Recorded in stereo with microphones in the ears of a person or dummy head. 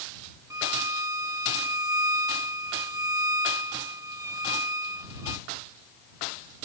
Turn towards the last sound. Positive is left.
turn(degrees=-15)  # may be behind; listen again after turning